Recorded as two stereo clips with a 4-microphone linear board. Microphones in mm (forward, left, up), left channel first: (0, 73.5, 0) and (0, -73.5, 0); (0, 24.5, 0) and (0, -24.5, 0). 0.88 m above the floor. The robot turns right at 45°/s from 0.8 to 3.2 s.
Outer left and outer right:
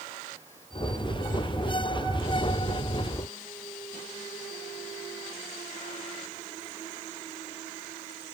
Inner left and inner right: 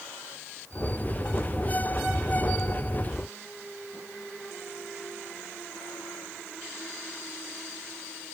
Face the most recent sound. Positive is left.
No sound to turn to.